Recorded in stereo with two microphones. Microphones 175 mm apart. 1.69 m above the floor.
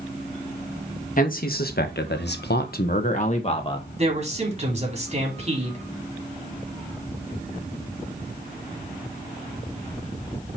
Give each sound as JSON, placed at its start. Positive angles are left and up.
{"t": 1.2, "sound": "a man speaking", "side_deg": 50, "distance_m": 2.0}
{"t": 4.0, "sound": "a man speaking", "side_deg": -40, "distance_m": 3.5}